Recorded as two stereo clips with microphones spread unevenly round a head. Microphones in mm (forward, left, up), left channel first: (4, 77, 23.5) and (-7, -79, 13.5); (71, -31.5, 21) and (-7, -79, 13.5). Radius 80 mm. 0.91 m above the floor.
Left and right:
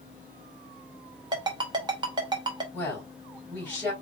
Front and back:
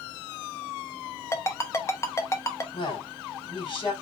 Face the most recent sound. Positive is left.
turn(degrees=5)